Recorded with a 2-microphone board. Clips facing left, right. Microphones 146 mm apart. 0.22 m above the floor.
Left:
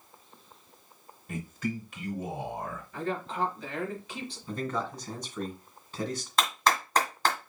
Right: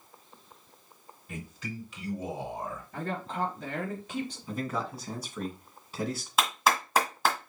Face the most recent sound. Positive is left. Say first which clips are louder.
# even
turn(degrees=-5)  # may be behind; listen again after turning